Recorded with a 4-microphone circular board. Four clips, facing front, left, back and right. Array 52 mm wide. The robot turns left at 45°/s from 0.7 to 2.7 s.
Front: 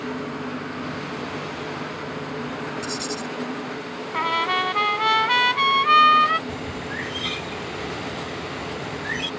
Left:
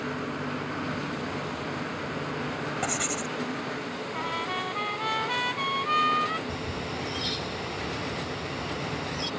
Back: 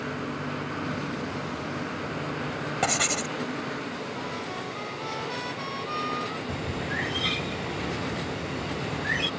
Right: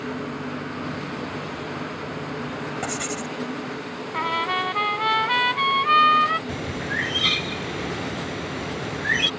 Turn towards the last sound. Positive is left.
turn(degrees=-95)